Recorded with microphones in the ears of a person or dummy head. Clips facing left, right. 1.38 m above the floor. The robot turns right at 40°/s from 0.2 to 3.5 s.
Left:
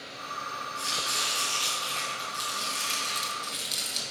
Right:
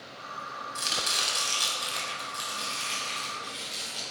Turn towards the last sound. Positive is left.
turn(degrees=40)